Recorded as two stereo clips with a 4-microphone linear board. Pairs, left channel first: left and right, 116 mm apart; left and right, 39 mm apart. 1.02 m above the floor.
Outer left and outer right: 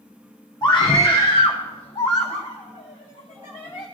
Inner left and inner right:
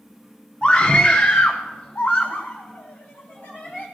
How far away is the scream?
About 0.8 m.